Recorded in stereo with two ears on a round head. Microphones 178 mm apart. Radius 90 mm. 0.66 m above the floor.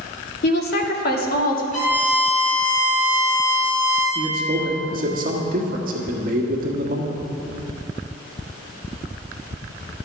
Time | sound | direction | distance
0.4 | a woman speaking | 55° left (ahead or behind) | 0.8 m
1.7 | a violin | 50° left (ahead or behind) | 2.5 m
4.2 | a man speaking | 45° right (ahead or behind) | 1.2 m